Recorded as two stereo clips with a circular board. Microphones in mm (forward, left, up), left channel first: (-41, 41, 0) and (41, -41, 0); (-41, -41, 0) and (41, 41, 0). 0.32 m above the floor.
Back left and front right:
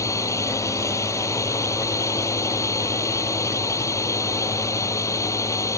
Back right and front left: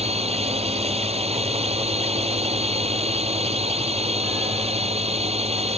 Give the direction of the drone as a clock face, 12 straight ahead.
10 o'clock.